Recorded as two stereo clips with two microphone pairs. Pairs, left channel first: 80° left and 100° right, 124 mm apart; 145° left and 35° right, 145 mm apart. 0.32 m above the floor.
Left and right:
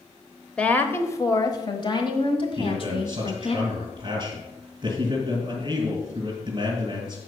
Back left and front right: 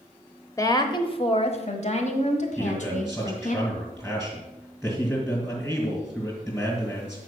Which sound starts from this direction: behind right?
A man speaking, at 2.6 s.